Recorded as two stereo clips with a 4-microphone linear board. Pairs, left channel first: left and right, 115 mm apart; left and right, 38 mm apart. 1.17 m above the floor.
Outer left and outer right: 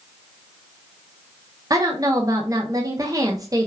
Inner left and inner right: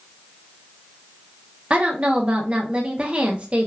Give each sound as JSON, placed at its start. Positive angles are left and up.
{"t": 1.7, "sound": "a woman speaking", "side_deg": -30, "distance_m": 0.6}